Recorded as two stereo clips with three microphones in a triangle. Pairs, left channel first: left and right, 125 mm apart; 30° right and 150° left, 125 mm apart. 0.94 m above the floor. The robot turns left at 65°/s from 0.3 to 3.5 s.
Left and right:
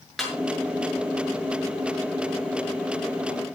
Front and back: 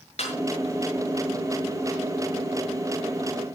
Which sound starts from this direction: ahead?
A snare drum, at 0.2 s.